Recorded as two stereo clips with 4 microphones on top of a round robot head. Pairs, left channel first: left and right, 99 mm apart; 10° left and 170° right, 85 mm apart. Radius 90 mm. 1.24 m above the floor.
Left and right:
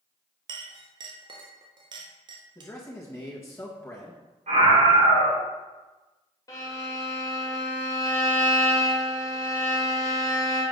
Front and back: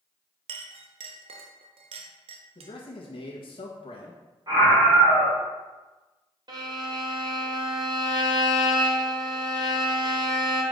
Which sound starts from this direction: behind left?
A violin, at 6.5 s.